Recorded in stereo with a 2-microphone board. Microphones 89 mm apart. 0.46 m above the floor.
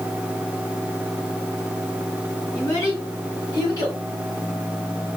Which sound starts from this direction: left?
A child speaking, at 2.5 s.